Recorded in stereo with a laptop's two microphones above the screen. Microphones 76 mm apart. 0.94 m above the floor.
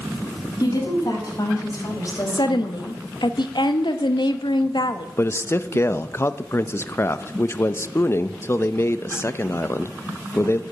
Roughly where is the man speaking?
Left.